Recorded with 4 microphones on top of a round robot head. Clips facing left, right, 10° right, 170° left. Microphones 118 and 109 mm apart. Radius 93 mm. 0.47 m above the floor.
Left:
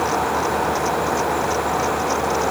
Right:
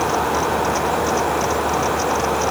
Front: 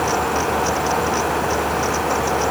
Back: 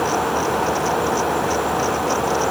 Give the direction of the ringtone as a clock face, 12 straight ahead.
I don't hear a ringtone.